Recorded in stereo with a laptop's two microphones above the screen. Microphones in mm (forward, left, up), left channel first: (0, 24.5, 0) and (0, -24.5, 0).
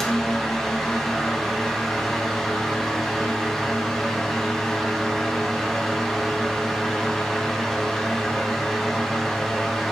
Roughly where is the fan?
Centre.